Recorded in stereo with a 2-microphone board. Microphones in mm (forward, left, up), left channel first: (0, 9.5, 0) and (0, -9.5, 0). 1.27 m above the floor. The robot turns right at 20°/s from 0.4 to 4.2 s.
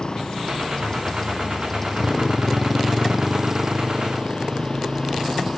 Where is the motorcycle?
45° left (ahead or behind); by 5.6 s 20° right (ahead or behind).